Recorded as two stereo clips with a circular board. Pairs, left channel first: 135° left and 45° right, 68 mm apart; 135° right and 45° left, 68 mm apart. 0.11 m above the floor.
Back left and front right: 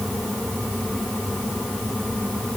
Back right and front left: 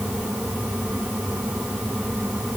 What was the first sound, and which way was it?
Only background noise.